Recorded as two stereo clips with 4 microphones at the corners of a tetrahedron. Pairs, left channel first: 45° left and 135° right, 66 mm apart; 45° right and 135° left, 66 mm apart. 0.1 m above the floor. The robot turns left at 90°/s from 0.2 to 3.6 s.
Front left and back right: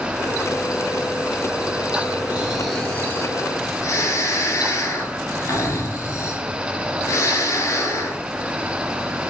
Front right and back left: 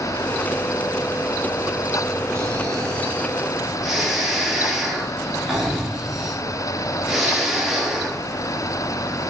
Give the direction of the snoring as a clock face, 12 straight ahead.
6 o'clock.